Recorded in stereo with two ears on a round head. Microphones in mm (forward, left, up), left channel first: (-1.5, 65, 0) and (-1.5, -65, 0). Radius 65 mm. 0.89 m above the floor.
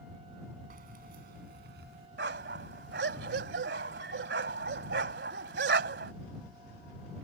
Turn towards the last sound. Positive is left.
turn(degrees=-85)